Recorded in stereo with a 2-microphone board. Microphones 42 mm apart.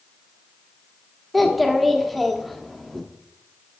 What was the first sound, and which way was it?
A child speaking, centre (ahead or behind).